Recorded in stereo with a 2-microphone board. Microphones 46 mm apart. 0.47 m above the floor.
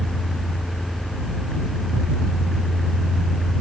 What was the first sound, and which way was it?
Only background noise.